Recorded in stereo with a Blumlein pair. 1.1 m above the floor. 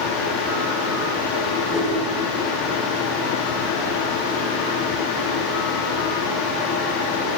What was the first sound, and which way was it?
A fan, 35° left.